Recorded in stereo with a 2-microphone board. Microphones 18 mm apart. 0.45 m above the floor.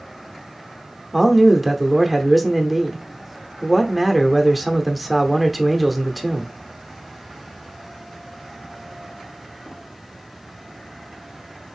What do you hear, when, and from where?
1.1 s a man speaking: 5° right (ahead or behind), 0.8 m